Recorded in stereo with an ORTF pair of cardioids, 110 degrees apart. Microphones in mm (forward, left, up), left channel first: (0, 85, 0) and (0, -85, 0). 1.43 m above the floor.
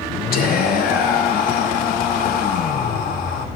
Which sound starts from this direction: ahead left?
Whispering, at 0.3 s.